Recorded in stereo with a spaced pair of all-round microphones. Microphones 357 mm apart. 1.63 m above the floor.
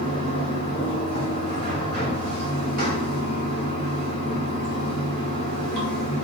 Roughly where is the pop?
No pop in this recording.